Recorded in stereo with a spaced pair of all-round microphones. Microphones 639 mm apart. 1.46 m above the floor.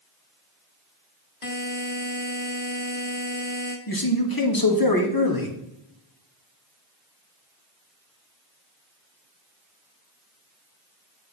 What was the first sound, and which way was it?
A buzzer, 55° left (ahead or behind).